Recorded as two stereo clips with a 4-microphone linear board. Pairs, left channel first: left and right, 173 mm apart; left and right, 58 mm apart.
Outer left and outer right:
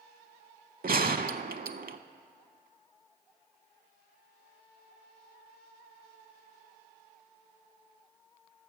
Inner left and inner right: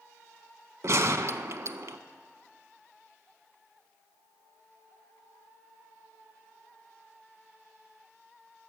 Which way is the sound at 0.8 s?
60° right (ahead or behind).